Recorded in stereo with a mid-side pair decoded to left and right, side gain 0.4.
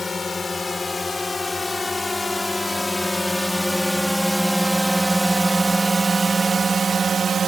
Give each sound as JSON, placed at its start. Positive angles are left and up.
{"t": 0.0, "sound": "a drone", "azimuth_deg": 35}